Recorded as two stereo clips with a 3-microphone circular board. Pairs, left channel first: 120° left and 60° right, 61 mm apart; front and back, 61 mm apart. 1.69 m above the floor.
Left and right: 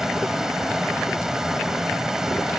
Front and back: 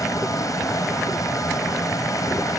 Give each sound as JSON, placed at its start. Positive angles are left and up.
{"t": 0.0, "sound": "a vehicle", "azimuth_deg": 25}